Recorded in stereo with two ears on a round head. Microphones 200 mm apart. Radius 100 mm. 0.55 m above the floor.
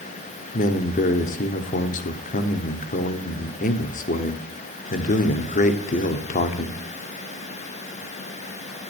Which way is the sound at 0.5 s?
35° left (ahead or behind).